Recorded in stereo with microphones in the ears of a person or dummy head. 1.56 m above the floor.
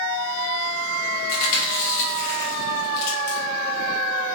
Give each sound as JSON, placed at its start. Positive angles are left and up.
{"t": 1.3, "sound": "chewing", "side_deg": 55, "distance_m": 1.0}